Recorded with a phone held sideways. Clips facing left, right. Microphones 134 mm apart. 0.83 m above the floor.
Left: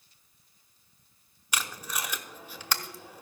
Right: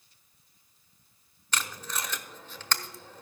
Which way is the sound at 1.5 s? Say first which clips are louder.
Even; 10° left (ahead or behind).